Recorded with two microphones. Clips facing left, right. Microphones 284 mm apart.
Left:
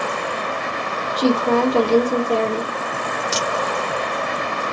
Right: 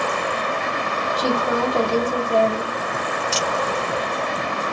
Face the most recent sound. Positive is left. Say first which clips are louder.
# left 1 dB
turn(degrees=45)  # may be behind; listen again after turning